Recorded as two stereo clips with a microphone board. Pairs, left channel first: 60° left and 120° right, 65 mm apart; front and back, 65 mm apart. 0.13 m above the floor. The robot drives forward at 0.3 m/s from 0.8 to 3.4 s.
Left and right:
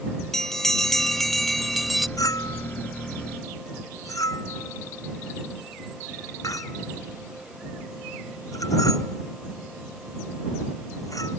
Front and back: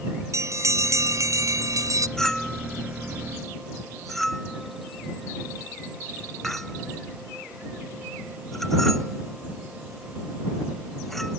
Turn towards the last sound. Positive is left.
turn(degrees=85)